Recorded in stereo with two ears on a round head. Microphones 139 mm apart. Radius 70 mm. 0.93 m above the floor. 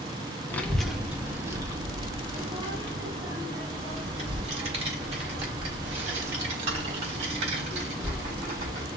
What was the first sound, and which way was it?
A child speaking, 15° left (ahead or behind).